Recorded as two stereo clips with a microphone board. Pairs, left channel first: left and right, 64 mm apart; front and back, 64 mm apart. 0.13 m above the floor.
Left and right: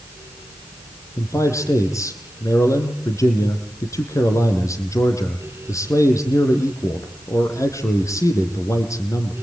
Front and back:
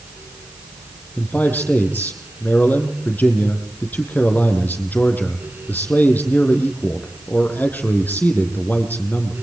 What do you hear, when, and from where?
1.2 s a man speaking: 60° left, 4.5 m